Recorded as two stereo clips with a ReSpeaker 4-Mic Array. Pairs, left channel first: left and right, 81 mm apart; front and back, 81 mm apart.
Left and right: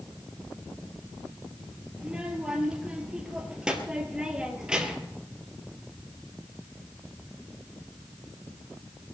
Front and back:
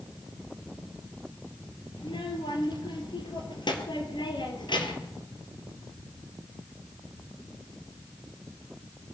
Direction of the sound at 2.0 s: 10° right.